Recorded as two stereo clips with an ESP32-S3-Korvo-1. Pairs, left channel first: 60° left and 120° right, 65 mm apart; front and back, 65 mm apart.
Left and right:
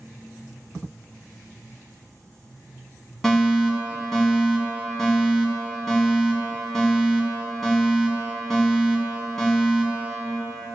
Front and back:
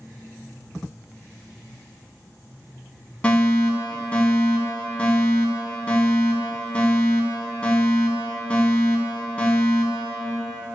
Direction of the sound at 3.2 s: 10° right.